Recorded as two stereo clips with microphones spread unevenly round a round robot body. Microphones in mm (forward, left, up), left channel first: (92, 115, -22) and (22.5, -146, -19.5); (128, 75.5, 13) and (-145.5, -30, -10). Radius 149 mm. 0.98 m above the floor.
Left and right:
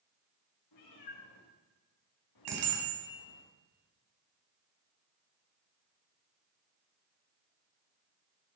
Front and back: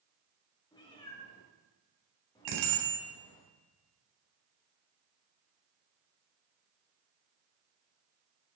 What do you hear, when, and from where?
0.7 s a cat meowing: 95° left, 7.5 m
2.5 s a bicycle bell: 130° right, 5 m